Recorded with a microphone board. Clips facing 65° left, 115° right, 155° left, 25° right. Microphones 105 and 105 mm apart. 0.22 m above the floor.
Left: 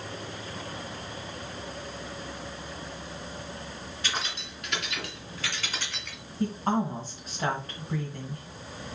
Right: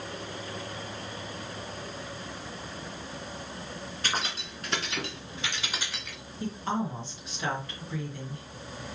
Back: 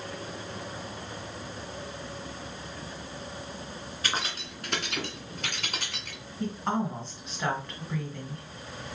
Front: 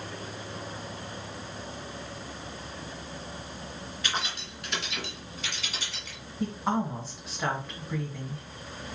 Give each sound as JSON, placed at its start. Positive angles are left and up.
{"t": 4.0, "sound": "keys jangling", "azimuth_deg": -155, "distance_m": 2.0}
{"t": 6.4, "sound": "a woman speaking", "azimuth_deg": 60, "distance_m": 2.0}